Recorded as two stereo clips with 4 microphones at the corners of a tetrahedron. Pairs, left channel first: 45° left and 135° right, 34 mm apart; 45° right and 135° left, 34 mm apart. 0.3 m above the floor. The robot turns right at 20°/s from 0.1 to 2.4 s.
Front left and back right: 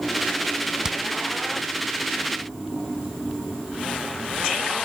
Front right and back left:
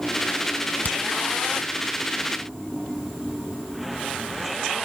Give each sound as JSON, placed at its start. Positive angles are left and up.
{"t": 0.8, "sound": "hammering", "azimuth_deg": -70, "distance_m": 1.8}